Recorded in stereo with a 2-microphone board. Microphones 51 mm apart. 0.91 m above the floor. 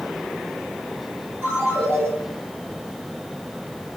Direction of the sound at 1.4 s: 40° right (ahead or behind).